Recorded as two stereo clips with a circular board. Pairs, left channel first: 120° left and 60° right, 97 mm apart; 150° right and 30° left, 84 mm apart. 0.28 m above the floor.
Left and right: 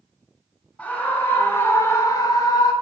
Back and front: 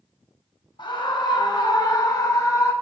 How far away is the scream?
About 1.9 m.